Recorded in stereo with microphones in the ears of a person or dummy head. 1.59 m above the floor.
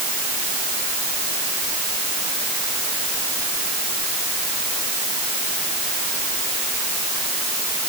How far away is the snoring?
I don't hear snoring.